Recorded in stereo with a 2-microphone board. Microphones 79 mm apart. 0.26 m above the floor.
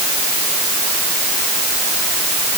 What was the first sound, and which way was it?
Only background noise.